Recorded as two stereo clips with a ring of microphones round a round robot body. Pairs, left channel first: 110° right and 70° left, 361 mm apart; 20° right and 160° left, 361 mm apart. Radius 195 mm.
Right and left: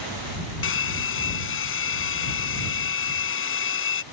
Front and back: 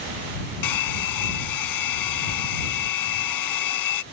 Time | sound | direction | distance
0.6 | a hair dryer | 55° right | ?